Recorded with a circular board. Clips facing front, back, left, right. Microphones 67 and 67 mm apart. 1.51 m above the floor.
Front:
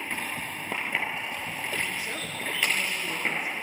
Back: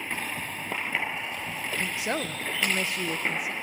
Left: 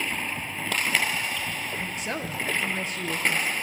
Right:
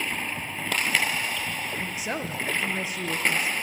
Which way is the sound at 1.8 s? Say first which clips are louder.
Back 3 dB, right 1 dB; 175° right.